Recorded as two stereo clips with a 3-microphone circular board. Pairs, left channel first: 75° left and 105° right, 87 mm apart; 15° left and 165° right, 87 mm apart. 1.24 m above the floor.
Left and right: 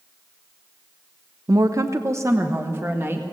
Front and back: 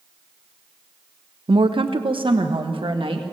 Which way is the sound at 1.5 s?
150° right.